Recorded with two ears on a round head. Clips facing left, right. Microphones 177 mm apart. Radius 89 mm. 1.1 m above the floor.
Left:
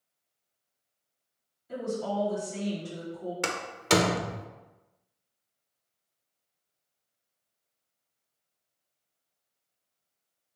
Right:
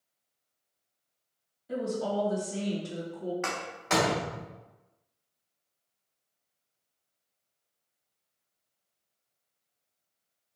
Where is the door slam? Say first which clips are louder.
Left 3 dB; 40° left (ahead or behind), 0.6 m.